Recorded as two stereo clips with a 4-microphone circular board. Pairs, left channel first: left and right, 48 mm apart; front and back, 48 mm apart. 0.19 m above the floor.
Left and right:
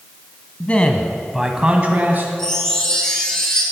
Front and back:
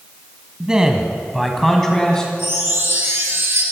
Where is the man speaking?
120° left, 1.6 m; by 2.3 s 70° right, 1.9 m.